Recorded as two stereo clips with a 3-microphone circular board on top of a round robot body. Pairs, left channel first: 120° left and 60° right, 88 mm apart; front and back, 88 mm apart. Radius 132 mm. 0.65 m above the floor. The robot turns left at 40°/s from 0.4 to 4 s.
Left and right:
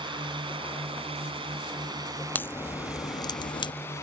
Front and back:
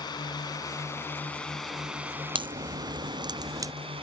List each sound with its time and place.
0.0 s a drone: 40° right; by 4.0 s straight behind
2.4 s a crack: 175° right; by 3.7 s 130° left